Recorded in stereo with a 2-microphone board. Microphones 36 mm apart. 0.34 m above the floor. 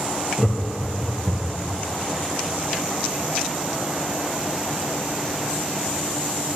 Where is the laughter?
5° left (ahead or behind), 1.6 m; by 1.7 s 30° right (ahead or behind), 2 m.